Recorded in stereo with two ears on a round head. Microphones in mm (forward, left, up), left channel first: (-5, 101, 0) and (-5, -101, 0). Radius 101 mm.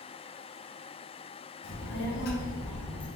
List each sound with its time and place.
1.6 s a child speaking: 55° left (ahead or behind), 0.9 m; by 3.1 s 20° left (ahead or behind), 0.8 m